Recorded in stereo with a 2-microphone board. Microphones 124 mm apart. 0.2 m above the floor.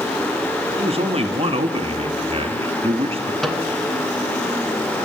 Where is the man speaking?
50° right (ahead or behind), 1.8 m.